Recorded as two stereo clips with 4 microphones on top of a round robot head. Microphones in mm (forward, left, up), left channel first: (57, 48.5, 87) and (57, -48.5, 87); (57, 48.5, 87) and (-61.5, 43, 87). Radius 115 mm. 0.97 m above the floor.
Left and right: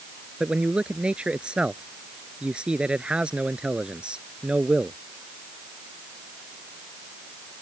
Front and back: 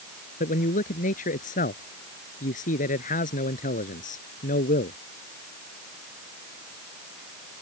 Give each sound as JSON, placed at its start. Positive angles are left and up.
{"t": 0.4, "sound": "a man speaking", "azimuth_deg": -10}